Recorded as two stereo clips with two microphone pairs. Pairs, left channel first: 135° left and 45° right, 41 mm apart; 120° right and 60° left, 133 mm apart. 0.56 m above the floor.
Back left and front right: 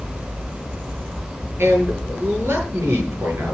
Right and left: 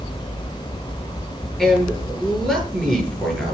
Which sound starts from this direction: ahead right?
A man speaking, at 1.6 s.